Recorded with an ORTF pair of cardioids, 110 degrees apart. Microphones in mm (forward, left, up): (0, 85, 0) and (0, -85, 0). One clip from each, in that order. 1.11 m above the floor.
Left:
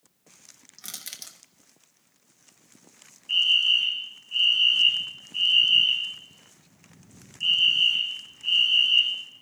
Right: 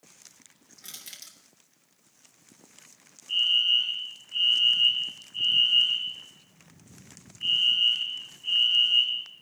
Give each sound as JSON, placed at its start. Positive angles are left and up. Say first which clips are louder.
{"t": 0.8, "sound": "crushing", "louder": "left 4 dB", "azimuth_deg": 35, "distance_m": 1.1}
{"t": 3.3, "sound": "a fire alarm", "louder": "left 2 dB", "azimuth_deg": 45, "distance_m": 3.0}